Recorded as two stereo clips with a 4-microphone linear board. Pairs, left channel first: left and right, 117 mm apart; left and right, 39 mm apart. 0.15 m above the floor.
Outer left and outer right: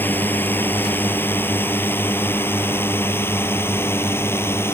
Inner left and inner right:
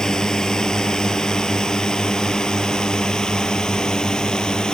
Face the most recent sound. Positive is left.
turn(degrees=20)  # may be behind; listen again after turning